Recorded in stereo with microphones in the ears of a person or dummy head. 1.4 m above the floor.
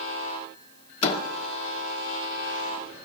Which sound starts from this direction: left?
A door slam, at 1.0 s.